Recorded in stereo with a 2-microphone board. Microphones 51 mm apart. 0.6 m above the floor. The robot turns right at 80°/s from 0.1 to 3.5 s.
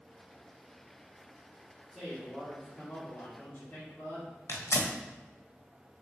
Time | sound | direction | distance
1.9 | a man speaking | straight ahead | 1.6 m
4.5 | tearing paper | 70° left (ahead or behind) | 0.6 m